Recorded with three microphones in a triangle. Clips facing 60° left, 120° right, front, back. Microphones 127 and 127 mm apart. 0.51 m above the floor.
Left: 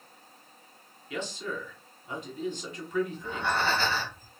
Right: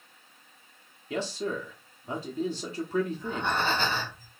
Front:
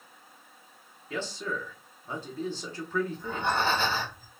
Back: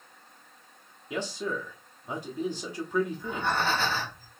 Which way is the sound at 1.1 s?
115° right.